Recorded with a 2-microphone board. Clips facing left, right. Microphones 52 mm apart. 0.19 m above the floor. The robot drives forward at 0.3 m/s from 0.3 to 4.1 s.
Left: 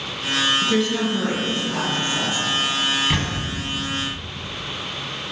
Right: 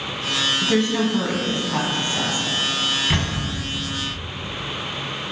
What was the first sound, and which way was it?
A woman speaking, 30° right (ahead or behind).